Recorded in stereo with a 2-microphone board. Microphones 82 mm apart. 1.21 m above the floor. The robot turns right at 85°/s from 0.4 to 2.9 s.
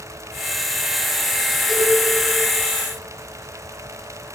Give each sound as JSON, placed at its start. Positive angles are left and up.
{"t": 1.7, "sound": "a cowbell", "side_deg": 0, "distance_m": 6.0}